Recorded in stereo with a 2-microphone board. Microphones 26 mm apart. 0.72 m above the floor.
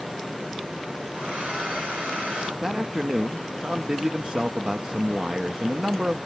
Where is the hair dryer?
80° right, 5 m.